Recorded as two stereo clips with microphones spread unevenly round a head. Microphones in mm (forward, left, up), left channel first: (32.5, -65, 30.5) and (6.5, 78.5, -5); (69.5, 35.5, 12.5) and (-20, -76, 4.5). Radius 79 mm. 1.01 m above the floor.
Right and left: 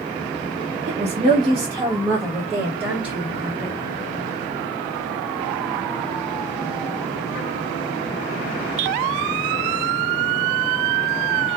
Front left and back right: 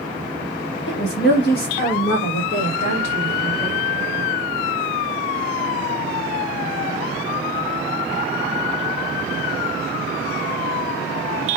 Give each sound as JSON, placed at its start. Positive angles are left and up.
{"t": 0.9, "sound": "a woman speaking", "azimuth_deg": 70, "distance_m": 0.8}